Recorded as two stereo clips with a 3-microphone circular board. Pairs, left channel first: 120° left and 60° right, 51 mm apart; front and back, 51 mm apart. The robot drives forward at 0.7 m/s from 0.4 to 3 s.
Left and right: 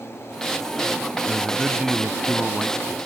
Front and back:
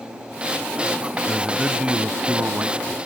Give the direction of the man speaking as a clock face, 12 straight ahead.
3 o'clock.